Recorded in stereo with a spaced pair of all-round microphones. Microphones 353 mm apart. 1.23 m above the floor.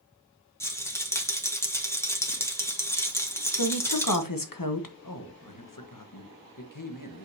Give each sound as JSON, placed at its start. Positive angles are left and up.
{"t": 0.6, "sound": "a rattle", "side_deg": 5, "distance_m": 1.3}
{"t": 3.5, "sound": "a woman speaking", "side_deg": 70, "distance_m": 1.1}
{"t": 5.0, "sound": "a man speaking", "side_deg": 65, "distance_m": 1.2}